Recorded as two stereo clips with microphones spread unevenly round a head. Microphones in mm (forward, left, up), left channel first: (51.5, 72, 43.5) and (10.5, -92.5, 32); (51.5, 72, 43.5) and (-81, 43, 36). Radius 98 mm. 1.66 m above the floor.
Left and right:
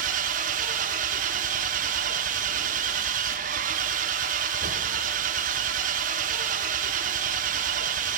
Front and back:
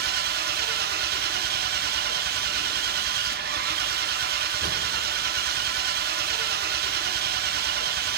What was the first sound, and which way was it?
An engine running, 155° right.